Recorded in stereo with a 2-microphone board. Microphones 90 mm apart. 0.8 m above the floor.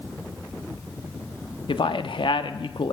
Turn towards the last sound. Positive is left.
turn(degrees=65)  # may be behind; listen again after turning